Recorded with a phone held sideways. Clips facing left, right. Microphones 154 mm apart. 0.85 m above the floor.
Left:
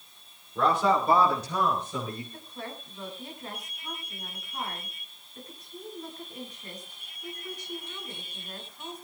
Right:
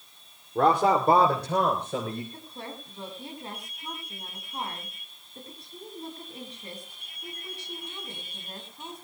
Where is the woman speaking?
30° right (ahead or behind), 8.5 m.